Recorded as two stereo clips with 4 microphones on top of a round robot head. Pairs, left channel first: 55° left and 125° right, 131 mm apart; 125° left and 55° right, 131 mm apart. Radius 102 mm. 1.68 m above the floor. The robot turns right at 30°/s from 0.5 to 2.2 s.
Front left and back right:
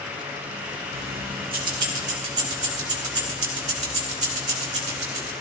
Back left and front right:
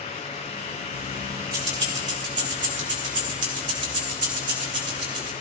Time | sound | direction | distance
0.9 | keys jangling | 125° right | 2.5 m